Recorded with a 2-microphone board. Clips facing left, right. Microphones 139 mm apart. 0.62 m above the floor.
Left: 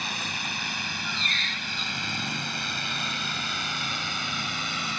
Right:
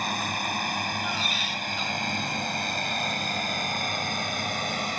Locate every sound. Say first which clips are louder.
0.0 s a drone: right 6 dB; 50° right (ahead or behind); by 5.0 s 45° right (ahead or behind)
1.0 s a squeak: right 5 dB; 10° right (ahead or behind)